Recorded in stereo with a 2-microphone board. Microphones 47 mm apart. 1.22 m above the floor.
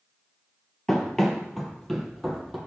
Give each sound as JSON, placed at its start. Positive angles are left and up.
{"t": 0.9, "sound": "running footsteps", "side_deg": 10, "distance_m": 1.5}